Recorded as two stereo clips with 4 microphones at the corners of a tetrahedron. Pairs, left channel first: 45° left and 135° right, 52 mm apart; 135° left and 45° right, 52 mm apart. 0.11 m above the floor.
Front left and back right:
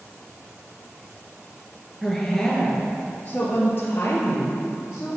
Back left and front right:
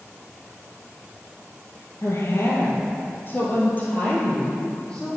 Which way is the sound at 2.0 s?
130° left.